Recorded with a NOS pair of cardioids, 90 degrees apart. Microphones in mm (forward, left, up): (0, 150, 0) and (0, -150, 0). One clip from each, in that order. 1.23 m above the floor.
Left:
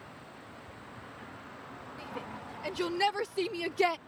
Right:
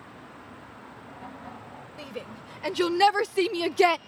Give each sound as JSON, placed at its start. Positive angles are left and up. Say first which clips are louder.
{"t": 2.0, "sound": "a shout", "louder": "right 3 dB", "azimuth_deg": -45}